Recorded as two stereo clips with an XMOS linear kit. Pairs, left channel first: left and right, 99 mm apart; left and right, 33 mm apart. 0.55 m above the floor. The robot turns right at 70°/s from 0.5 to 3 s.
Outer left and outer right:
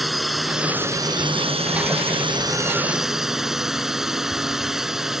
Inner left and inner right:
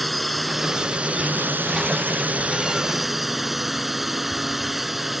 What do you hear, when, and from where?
0.0 s a drone: straight behind; by 5.2 s 5° right